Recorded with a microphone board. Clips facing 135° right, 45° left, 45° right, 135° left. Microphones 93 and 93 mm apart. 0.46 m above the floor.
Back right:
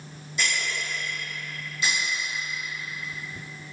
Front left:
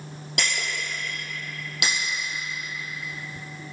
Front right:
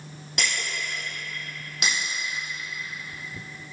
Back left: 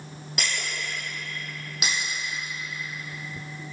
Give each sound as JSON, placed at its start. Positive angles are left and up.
{"t": 0.4, "sound": "breaking glass", "azimuth_deg": 45, "distance_m": 2.5}